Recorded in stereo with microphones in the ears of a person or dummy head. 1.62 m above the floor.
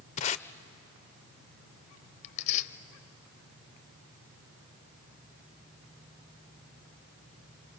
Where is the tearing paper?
35° left (ahead or behind), 0.8 m.